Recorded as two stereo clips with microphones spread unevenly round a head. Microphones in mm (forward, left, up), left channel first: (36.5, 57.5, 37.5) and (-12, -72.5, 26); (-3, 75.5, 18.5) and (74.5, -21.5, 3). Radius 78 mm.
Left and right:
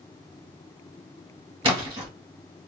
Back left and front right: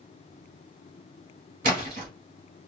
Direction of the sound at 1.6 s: 55° right.